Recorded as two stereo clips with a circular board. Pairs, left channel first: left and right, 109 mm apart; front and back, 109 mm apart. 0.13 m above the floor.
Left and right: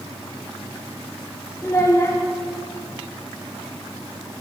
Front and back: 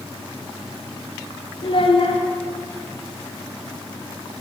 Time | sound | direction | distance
1.6 | a child speaking | 20° left | 1.6 m